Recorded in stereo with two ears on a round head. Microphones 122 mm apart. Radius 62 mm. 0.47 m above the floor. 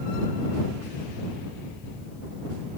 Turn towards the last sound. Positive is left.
No sound to turn to.